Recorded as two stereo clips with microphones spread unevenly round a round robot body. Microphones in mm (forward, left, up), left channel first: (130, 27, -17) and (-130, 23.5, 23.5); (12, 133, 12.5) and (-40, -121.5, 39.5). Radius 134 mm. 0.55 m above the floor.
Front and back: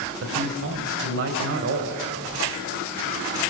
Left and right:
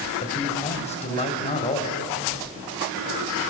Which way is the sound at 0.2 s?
140° left.